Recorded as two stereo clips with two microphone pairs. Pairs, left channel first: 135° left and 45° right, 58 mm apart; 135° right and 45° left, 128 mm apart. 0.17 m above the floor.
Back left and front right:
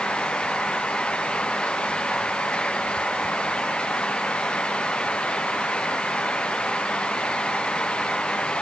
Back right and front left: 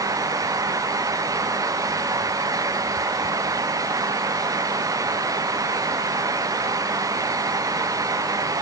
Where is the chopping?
No chopping in this recording.